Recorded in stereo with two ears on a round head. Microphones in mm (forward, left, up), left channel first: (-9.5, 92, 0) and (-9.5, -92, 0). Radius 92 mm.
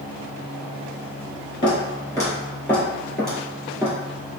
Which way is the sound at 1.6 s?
20° left (ahead or behind).